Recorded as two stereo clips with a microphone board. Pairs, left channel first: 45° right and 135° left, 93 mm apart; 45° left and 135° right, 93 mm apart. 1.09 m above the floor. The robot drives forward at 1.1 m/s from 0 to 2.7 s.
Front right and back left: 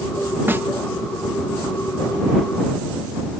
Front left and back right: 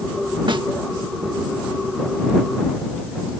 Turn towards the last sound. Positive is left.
turn(degrees=-175)